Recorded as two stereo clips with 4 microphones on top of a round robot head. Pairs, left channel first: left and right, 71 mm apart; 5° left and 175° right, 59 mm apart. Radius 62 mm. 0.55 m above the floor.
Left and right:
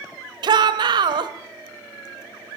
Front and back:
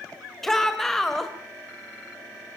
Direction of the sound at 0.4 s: 85° right.